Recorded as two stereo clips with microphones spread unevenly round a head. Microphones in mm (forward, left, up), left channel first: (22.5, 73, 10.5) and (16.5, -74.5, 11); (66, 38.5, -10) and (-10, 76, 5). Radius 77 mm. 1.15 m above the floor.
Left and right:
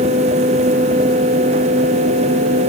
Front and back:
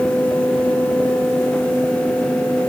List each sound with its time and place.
Only background noise.